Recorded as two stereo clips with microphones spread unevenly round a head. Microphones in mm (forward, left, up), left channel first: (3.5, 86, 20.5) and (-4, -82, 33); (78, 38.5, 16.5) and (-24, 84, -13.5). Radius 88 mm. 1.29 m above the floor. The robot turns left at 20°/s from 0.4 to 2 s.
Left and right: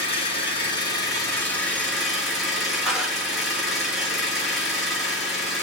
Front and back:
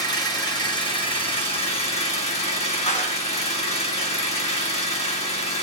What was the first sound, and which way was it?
An engine running, 30° left.